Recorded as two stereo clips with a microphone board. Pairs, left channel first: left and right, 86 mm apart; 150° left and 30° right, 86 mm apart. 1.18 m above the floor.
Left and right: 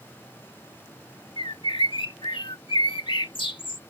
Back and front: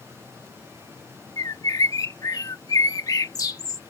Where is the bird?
105° left.